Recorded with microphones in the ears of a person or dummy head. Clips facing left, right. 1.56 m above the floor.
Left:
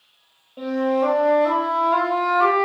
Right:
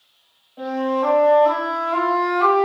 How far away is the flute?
About 0.8 m.